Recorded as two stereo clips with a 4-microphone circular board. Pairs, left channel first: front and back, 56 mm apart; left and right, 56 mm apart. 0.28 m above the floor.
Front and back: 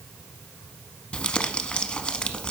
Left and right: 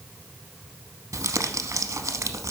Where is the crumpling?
70° right, 0.7 m.